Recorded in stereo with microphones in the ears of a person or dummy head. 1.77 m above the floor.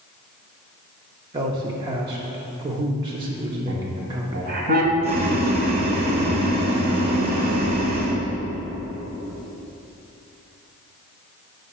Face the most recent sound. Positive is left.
turn(degrees=-45)  # may be behind; listen again after turning